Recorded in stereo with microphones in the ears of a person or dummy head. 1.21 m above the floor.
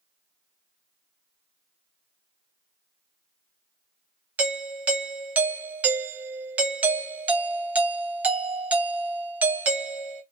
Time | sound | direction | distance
4.4 | a doorbell | 10° right (ahead or behind) | 0.7 m